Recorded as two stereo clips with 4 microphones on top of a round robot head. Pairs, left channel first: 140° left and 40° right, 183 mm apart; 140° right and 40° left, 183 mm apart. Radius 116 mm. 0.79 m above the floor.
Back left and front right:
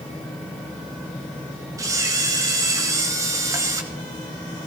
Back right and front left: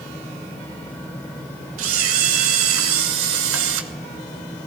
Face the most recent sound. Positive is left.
turn(degrees=30)